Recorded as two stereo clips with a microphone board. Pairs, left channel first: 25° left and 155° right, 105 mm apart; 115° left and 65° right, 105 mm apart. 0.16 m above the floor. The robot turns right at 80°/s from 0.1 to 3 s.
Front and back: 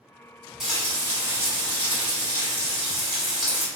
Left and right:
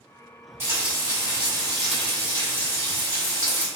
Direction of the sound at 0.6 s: 75° right.